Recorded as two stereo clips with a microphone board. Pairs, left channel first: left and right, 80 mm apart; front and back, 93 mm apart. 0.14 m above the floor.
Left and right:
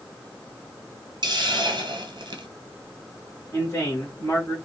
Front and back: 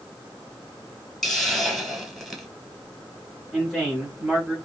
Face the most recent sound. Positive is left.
turn(degrees=85)